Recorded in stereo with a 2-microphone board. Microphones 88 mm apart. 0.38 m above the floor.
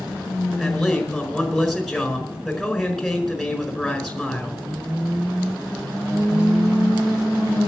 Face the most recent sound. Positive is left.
turn(degrees=0)  # may be behind; listen again after turning